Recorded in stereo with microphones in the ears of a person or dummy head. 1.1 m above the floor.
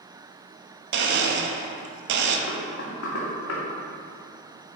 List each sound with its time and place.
0.9 s a blender: 70° right (ahead or behind), 1.1 m
2.5 s knocking: 75° left (ahead or behind), 2.5 m